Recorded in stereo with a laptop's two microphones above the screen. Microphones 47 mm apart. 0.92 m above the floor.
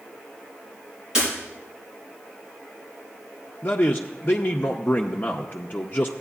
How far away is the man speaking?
About 0.6 m.